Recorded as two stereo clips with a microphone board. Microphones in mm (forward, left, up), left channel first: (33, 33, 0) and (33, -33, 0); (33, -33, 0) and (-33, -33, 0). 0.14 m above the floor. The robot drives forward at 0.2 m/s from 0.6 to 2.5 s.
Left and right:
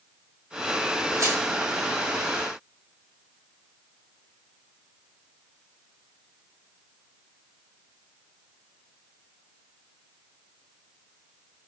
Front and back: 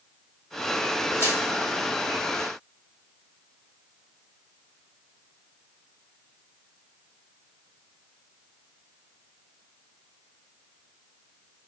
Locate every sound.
1.2 s crushing: 125° right, 3 m